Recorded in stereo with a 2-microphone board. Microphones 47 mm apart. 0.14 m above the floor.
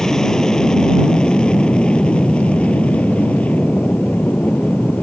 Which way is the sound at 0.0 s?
10° left (ahead or behind).